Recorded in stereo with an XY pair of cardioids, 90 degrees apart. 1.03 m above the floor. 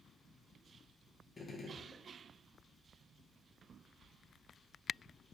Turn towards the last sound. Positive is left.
turn(degrees=35)